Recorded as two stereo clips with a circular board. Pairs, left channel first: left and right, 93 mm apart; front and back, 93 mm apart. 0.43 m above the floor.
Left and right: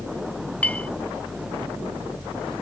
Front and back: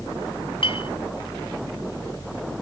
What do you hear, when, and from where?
0.6 s a clink: 15° left